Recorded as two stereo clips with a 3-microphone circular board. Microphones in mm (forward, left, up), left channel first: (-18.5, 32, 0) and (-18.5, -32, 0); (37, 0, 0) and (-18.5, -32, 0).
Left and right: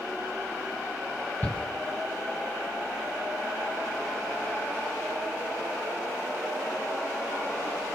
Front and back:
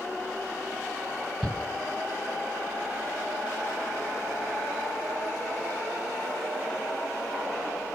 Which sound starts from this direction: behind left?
A shout, at 1.4 s.